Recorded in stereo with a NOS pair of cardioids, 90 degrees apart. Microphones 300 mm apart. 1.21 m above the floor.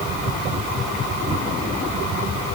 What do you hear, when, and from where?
Only background noise.